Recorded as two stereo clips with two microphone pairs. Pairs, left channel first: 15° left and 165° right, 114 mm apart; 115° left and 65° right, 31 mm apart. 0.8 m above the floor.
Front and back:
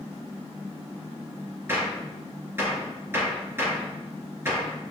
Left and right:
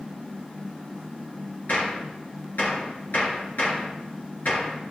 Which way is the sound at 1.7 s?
125° left.